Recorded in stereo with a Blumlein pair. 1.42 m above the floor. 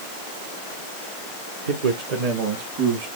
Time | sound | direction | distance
1.7 | a man speaking | 60° right | 0.8 m